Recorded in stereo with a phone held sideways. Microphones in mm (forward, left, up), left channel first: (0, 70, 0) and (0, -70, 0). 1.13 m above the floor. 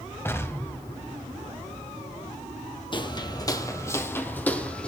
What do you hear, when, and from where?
0.2 s an explosion: 20° left (ahead or behind), 1.2 m
2.9 s footsteps: 35° left (ahead or behind), 1.3 m; by 4.9 s 5° left (ahead or behind), 2.0 m